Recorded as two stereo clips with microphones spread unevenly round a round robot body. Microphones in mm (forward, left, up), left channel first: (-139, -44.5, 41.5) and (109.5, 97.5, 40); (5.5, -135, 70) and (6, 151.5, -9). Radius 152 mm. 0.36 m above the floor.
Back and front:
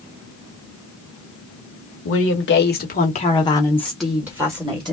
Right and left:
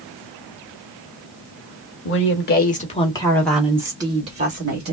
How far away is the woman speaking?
About 1.4 m.